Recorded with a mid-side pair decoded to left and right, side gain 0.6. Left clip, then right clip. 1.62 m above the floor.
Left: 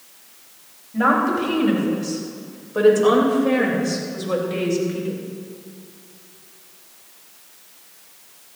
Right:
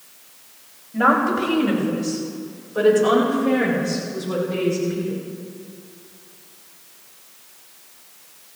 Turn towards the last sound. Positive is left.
turn(degrees=55)